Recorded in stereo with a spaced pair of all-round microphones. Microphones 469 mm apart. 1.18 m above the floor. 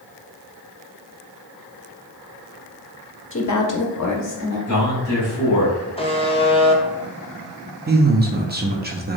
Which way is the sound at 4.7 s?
40° left (ahead or behind).